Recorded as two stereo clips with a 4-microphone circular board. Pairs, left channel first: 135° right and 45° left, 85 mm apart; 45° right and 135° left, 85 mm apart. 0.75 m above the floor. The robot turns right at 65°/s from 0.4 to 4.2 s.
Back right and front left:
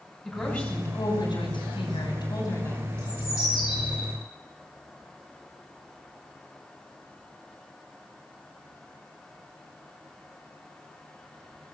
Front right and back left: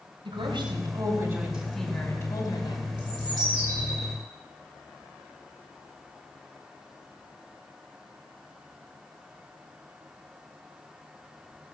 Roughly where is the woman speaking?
Behind left.